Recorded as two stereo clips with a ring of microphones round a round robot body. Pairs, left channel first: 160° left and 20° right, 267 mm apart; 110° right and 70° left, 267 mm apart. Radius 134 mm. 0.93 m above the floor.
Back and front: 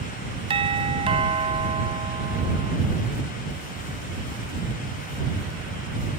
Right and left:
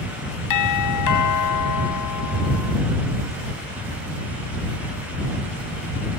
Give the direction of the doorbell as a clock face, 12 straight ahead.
3 o'clock.